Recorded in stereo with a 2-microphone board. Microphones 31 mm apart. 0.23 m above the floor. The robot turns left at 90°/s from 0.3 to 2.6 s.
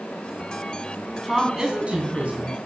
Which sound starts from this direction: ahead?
A woman speaking, at 1.2 s.